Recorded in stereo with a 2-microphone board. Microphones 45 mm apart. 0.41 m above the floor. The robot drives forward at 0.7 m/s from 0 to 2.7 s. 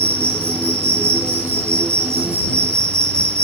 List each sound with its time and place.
0.0 s an insect: 70° right (ahead or behind), 8.5 m; by 3.4 s 75° right (ahead or behind), 8 m